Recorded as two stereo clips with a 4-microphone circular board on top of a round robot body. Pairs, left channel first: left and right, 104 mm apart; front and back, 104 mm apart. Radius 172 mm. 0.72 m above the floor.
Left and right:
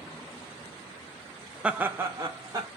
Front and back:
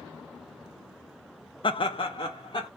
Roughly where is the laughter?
Ahead.